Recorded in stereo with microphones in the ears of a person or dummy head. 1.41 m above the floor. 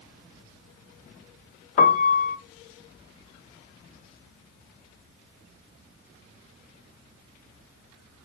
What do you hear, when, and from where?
1.8 s a piano: 40° left (ahead or behind), 0.7 m